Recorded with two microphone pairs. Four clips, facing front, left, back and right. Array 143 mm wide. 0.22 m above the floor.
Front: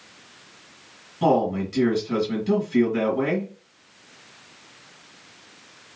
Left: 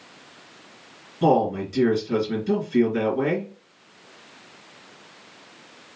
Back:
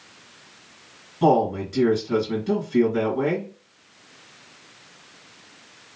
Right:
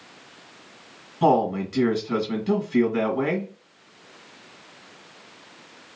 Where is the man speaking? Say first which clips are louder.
Even, back 1 dB; 100° right, 1.8 m.